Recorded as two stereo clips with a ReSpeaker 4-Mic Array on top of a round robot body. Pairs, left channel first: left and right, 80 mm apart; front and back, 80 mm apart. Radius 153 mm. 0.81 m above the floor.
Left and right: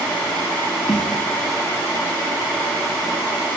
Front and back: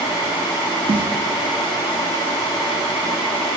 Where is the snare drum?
175° left, 0.6 m.